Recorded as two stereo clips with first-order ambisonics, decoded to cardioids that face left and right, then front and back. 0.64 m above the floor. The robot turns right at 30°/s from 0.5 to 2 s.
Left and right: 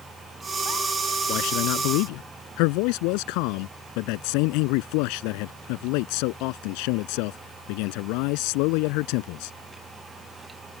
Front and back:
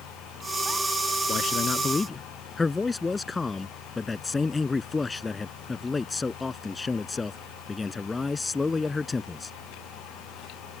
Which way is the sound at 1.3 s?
55° left.